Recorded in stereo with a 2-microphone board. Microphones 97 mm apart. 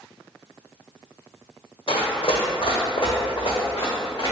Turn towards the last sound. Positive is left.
turn(degrees=45)  # may be behind; listen again after turning